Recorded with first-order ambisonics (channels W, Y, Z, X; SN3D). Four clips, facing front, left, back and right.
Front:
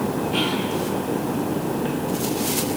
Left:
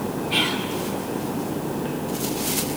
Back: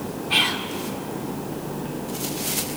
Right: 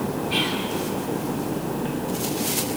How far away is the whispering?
About 2.5 m.